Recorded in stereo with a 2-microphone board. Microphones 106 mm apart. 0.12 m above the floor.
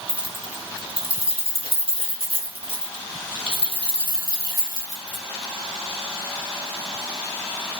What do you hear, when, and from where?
0.1 s keys jangling: 50° right (ahead or behind), 1.8 m; by 5.2 s 30° right (ahead or behind), 3 m